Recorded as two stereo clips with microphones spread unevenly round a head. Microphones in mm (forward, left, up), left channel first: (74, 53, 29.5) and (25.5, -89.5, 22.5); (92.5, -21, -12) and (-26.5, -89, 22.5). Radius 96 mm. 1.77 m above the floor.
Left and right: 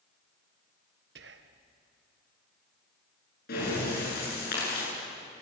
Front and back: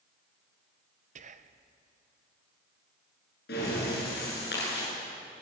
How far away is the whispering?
About 1.2 m.